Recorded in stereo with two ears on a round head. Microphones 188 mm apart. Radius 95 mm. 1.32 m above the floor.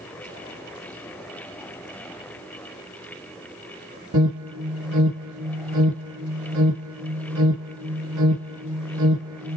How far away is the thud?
No thud in this recording.